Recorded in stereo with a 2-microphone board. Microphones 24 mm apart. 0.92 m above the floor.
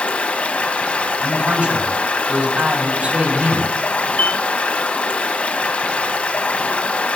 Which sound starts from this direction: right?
A man speaking, at 1.2 s.